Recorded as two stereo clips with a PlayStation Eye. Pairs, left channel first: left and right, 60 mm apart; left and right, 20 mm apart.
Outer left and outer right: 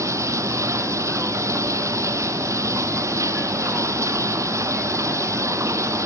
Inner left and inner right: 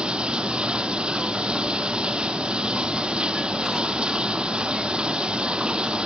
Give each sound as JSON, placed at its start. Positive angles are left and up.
{"t": 0.0, "sound": "running water", "side_deg": -55, "distance_m": 1.1}